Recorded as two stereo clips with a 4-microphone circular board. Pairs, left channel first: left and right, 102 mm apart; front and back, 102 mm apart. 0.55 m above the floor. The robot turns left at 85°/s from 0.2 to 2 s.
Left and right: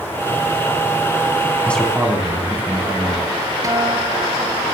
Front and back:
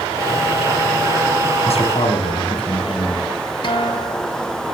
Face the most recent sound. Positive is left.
turn(degrees=-35)